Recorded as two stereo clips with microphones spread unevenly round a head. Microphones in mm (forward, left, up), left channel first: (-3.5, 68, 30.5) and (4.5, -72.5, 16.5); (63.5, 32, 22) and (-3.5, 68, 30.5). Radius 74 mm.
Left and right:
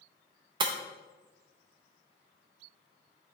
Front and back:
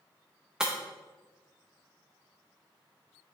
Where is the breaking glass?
135° right, 0.6 m.